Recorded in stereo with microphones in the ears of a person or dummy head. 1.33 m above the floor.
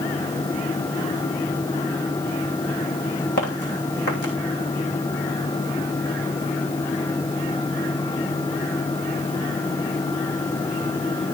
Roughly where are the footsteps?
Left.